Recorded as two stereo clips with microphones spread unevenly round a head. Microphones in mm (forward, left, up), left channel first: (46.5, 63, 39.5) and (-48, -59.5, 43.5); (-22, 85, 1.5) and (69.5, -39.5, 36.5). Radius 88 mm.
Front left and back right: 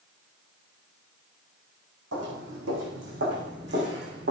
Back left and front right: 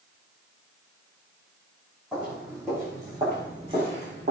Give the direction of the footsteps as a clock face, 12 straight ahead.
5 o'clock.